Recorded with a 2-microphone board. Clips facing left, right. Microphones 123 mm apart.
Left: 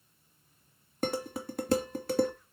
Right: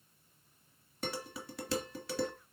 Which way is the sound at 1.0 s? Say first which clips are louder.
Left 8 dB; 50° left (ahead or behind).